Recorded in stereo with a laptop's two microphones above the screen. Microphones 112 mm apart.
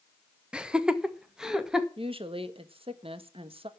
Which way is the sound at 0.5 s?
10° right (ahead or behind).